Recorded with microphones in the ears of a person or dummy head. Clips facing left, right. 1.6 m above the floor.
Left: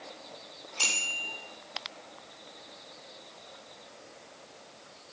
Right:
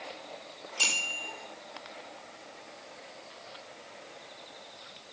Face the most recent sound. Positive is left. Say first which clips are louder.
# even
turn(degrees=-10)  # may be behind; listen again after turning